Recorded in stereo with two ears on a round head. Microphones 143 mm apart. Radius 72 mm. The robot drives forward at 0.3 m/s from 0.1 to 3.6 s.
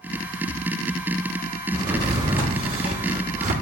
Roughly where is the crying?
No crying in this recording.